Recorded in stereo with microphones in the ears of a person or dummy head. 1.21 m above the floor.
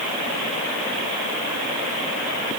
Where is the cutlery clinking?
No cutlery clinking in this recording.